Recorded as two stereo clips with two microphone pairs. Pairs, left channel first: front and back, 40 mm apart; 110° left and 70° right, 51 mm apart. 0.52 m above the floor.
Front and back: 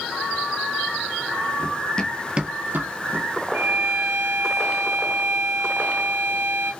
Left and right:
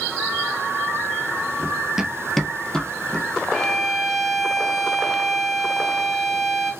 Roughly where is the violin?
Behind.